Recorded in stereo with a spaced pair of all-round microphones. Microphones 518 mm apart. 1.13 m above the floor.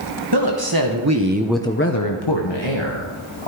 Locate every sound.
0.3 s a woman speaking: 45° right (ahead or behind), 1.6 m; by 3.5 s 60° left (ahead or behind), 2 m